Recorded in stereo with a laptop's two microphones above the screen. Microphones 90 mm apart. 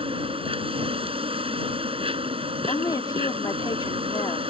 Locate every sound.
0.0 s an insect: 75° right (ahead or behind)
2.7 s a woman speaking: 45° left (ahead or behind)